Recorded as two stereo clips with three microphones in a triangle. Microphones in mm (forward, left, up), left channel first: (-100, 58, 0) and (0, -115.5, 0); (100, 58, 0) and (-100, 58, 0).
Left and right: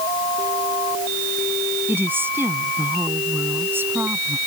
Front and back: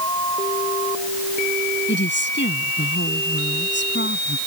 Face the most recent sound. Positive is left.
turn(degrees=20)